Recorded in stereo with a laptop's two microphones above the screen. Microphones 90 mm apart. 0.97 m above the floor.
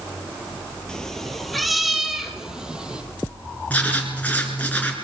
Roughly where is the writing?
Centre.